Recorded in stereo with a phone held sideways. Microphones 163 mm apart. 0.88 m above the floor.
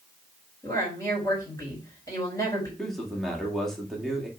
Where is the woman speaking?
20° left (ahead or behind), 4 m.